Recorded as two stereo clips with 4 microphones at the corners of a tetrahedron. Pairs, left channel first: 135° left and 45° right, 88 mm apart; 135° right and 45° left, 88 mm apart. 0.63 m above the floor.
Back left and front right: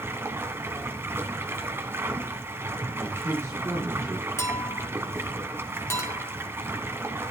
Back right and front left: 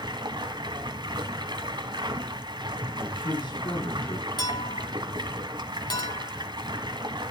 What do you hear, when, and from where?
0.0 s running water: 15° left, 1.5 m
3.0 s a man speaking: 105° right, 9.5 m
4.4 s a clink: 170° right, 2.5 m